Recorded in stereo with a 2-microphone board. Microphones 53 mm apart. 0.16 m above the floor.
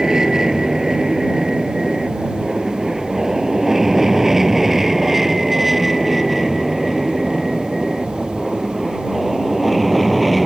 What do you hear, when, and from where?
0.0 s an aircraft: 10° right (ahead or behind); by 10.5 s centre (ahead or behind)